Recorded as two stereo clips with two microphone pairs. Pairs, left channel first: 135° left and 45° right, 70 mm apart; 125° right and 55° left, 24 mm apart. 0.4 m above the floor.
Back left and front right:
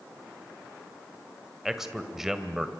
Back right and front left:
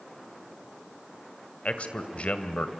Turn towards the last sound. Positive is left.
turn(degrees=-125)